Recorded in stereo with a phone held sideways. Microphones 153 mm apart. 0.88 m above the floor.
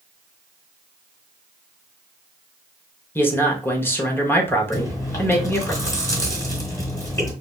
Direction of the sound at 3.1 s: 10° left (ahead or behind).